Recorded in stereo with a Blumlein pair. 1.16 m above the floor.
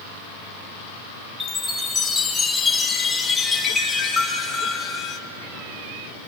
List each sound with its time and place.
1.4 s a chime: 15° left, 2.5 m